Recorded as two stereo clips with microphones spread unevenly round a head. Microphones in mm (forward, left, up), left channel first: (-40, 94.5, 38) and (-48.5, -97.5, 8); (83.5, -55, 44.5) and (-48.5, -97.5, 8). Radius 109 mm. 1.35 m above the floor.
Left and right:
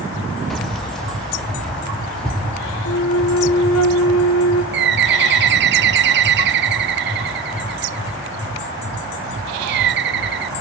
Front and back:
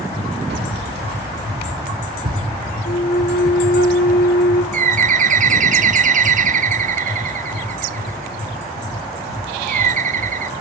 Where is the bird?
125° right, 0.5 m.